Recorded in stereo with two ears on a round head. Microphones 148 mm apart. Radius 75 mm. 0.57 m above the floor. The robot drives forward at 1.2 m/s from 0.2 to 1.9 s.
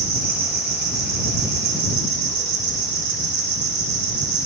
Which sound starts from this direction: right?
An insect, at 0.0 s.